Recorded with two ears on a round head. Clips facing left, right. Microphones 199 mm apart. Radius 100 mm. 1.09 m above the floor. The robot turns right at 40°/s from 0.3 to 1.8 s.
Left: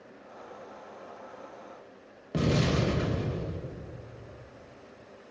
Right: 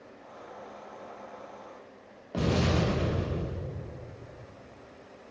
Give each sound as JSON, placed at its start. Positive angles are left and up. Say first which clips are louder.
{"t": 2.3, "sound": "an explosion", "louder": "even", "side_deg": 25, "distance_m": 1.1}